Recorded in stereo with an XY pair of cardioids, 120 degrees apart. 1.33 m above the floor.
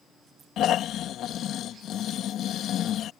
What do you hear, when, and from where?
0.6 s snoring: 60° left